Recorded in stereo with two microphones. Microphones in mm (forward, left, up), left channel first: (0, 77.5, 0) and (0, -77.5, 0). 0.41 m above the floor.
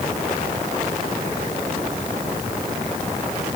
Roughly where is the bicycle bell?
No bicycle bell in this recording.